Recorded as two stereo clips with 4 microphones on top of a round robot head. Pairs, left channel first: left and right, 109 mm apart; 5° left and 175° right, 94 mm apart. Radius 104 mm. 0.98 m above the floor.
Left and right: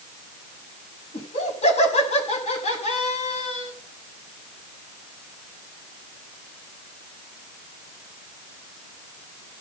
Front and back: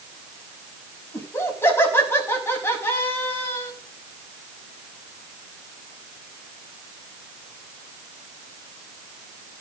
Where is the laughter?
70° left, 6 m.